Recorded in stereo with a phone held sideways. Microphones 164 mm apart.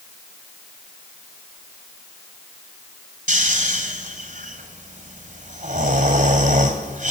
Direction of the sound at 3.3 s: 50° right (ahead or behind).